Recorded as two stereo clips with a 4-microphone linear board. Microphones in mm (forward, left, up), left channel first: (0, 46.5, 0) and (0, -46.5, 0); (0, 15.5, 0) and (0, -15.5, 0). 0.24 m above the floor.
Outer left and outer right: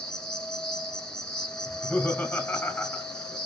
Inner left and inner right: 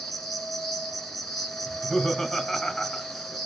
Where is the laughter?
20° left (ahead or behind), 1.1 m.